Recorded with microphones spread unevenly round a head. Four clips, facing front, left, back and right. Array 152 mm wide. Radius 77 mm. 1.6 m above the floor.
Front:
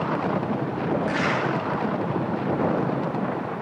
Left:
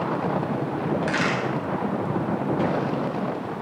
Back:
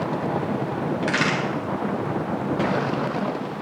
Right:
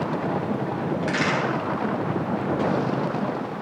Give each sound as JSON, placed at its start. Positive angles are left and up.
{"t": 1.0, "sound": "a crack", "azimuth_deg": 170, "distance_m": 8.5}